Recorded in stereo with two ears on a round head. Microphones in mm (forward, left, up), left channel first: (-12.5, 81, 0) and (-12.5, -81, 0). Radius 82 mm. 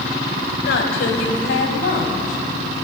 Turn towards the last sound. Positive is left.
turn(degrees=50)  # may be behind; listen again after turning